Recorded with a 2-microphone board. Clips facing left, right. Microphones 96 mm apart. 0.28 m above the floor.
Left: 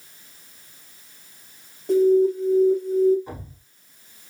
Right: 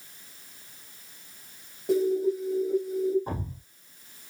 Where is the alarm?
5° right (ahead or behind), 2 m.